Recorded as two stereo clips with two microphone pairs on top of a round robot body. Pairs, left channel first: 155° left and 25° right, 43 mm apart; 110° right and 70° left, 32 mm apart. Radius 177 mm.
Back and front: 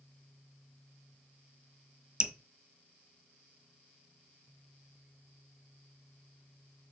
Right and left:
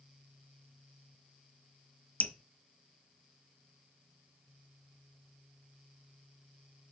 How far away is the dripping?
About 1.2 m.